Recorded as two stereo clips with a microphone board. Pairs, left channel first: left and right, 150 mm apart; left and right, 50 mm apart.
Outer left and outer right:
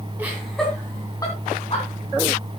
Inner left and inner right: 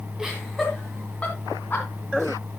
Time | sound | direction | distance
0.2 | laughter | 10° right (ahead or behind) | 2.5 m